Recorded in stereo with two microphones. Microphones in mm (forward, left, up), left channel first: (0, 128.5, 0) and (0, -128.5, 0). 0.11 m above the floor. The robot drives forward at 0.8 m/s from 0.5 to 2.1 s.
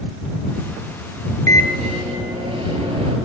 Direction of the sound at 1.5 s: 30° right (ahead or behind).